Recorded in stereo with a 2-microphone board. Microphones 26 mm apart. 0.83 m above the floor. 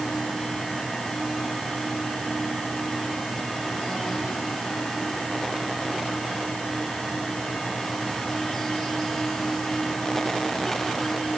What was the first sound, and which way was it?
Only background noise.